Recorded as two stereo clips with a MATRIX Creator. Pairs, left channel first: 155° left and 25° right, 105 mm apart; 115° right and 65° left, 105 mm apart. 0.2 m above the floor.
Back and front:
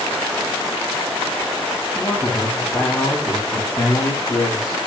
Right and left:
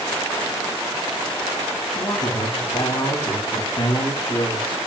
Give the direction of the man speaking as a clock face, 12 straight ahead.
4 o'clock.